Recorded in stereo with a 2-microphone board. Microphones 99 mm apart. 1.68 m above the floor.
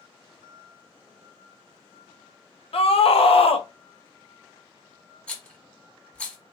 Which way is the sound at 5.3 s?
5° left (ahead or behind).